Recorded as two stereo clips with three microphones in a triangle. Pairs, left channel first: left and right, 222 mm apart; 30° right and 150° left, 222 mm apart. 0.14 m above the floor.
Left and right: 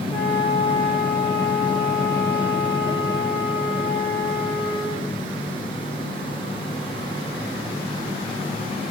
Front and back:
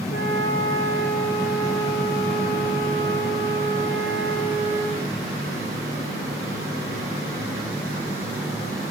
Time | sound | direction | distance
0.1 | a flute | 10° left | 8 m